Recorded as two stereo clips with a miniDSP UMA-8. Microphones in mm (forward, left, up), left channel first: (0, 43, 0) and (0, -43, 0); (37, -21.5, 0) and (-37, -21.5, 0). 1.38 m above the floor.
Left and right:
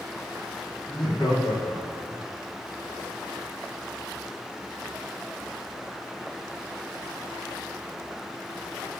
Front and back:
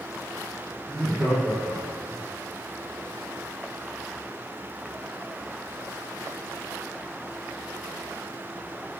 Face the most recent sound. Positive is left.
turn(degrees=85)